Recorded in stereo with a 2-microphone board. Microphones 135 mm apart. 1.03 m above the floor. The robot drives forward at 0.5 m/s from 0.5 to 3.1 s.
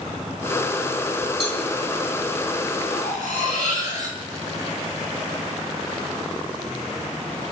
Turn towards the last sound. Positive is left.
turn(degrees=80)